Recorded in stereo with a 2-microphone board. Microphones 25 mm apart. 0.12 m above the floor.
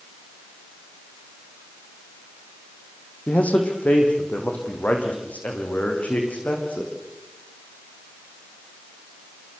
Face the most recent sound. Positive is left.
turn(degrees=80)